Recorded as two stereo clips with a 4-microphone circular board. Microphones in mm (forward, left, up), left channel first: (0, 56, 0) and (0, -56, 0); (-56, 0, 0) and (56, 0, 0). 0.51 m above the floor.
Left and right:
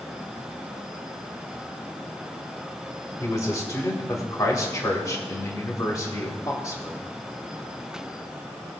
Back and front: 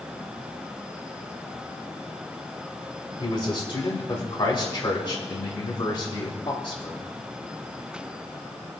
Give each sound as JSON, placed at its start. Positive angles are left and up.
{"t": 3.2, "sound": "a man speaking", "azimuth_deg": 145, "distance_m": 2.5}